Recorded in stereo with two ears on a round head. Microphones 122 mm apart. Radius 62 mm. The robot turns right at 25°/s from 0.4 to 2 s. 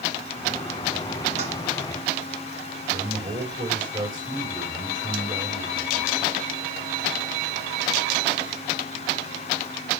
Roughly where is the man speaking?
Right.